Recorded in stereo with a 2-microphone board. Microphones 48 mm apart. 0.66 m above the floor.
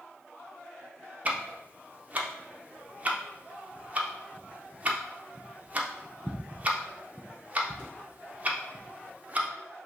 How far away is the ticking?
About 0.5 m.